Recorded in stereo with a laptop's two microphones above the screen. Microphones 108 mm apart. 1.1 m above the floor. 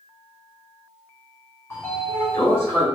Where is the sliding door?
20° left (ahead or behind), 1.4 m.